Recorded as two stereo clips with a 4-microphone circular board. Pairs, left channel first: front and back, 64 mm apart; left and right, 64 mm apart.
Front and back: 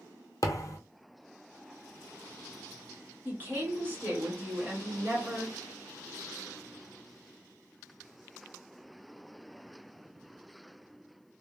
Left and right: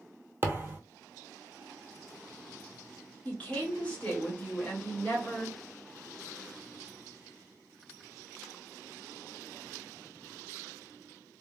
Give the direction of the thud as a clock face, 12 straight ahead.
1 o'clock.